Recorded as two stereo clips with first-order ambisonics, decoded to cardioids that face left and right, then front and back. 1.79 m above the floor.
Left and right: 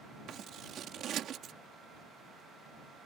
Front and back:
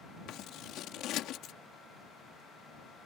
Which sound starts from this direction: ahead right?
Scissors, at 0.3 s.